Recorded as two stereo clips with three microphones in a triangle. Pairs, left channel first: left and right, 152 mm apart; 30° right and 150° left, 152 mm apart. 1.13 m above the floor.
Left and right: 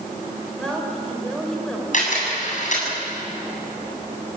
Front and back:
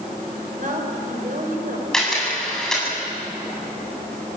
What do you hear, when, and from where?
0.6 s a woman speaking: 175° left, 5.5 m
1.9 s a camera shutter: 55° left, 8 m